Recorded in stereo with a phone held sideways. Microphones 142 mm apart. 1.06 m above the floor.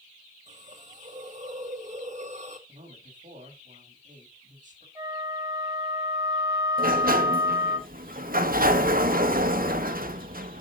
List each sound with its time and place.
0.5 s a hiss: 55° right (ahead or behind), 1.7 m
2.7 s a man speaking: 60° right (ahead or behind), 4.5 m
5.0 s a flute: 25° right (ahead or behind), 5.5 m
6.8 s a sliding door: 85° right, 1.0 m